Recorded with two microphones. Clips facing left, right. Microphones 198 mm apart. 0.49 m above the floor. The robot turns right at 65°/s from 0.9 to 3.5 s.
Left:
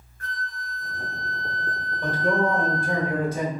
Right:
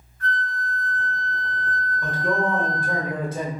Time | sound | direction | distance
0.2 | a flute | 90° left | 1.5 m
2.0 | a man speaking | 130° left | 1.5 m